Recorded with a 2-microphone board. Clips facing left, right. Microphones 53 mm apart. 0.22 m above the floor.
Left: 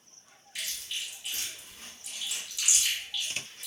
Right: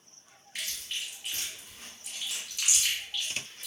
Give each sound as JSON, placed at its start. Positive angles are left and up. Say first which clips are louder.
{"t": 0.6, "sound": "chewing", "louder": "even", "side_deg": -45, "distance_m": 1.2}